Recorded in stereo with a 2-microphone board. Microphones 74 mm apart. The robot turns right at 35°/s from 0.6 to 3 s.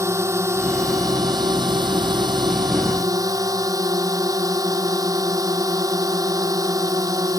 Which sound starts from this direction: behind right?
A drone, at 0.0 s.